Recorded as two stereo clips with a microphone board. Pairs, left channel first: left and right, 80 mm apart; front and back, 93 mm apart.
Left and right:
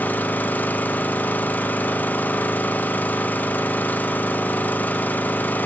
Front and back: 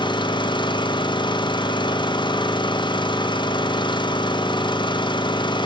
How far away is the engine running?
About 0.7 m.